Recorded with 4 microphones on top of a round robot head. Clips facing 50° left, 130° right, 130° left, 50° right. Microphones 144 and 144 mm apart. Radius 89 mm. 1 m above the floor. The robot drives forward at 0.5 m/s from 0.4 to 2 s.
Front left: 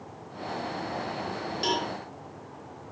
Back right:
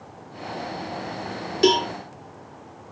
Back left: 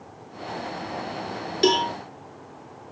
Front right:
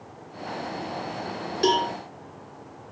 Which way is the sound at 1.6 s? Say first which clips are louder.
Back right 12 dB, back left 2 dB; 160° right.